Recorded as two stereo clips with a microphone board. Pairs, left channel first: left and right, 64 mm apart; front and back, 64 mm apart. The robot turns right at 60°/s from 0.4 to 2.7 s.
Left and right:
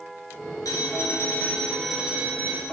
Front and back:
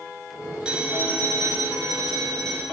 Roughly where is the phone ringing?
Left.